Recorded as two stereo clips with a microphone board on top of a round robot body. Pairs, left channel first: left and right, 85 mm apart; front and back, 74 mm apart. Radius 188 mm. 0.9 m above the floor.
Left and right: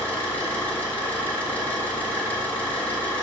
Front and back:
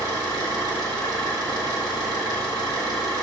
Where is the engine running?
20° left, 3.5 m.